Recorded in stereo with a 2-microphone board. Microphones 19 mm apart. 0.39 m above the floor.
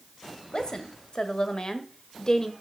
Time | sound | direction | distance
0.5 | a woman speaking | 50° left (ahead or behind) | 1.8 m